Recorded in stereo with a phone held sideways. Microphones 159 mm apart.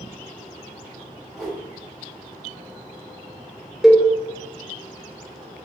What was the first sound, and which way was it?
A whoosh, 10° left (ahead or behind).